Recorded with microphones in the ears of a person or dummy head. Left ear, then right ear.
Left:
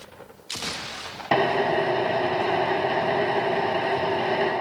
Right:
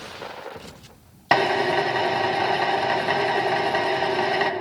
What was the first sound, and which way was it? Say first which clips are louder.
A drill: right 2 dB; 55° right (ahead or behind).